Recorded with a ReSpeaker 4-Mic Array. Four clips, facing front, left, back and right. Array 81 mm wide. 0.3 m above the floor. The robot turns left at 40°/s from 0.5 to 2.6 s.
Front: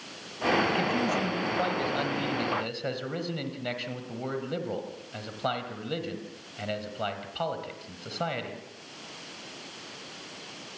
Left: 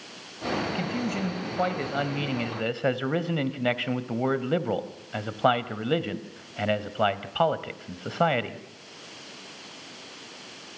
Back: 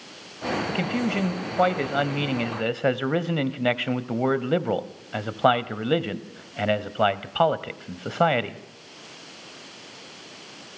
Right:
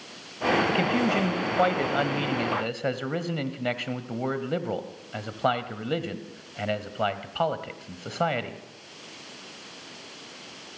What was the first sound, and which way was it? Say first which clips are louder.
A man speaking: right 6 dB, back 1 dB; 115° right.